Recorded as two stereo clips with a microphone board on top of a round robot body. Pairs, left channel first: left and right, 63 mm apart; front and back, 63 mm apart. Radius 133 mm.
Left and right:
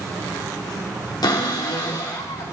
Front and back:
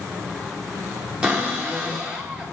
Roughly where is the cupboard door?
Left.